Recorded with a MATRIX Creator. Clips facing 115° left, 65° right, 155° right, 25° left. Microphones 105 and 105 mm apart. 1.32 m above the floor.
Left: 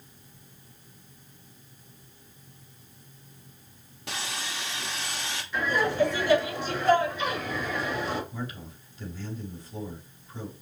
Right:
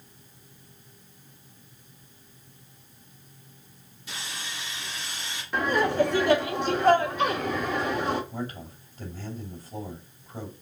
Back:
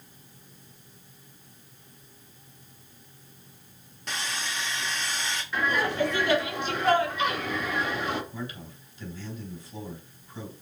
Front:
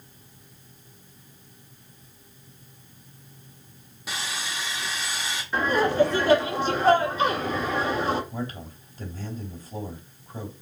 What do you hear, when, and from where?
4.1 s sawing: 105° left, 1.8 m
5.5 s laughter: 35° right, 2.5 m
8.3 s a man speaking: 15° right, 4 m